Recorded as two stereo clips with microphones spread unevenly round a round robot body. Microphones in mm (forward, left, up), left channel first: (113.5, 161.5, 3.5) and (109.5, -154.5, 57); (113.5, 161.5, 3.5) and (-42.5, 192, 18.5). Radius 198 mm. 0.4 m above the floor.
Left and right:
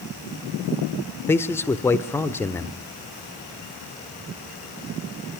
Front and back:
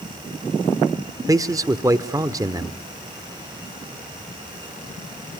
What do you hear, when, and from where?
1.3 s a man speaking: 120° left, 0.8 m